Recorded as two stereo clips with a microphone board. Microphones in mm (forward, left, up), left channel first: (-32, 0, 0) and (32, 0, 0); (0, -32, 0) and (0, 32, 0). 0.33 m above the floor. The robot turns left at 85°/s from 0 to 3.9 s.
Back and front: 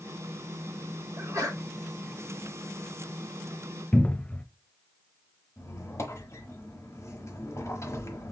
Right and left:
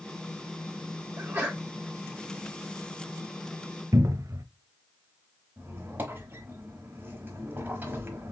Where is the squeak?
145° left, 1.1 m.